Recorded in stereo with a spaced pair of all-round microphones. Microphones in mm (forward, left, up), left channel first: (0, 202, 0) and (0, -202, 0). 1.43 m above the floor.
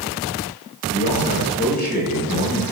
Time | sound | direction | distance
0.9 | a man speaking | 25° left (ahead or behind) | 4.5 m